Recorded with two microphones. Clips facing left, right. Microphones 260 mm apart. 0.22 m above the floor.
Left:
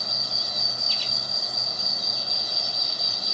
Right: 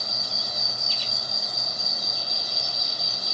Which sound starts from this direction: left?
An insect, at 0.0 s.